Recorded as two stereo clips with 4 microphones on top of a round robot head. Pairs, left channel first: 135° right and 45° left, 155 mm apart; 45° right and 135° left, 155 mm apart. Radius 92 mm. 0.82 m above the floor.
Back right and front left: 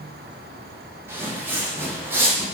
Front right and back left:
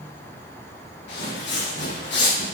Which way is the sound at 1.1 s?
30° right.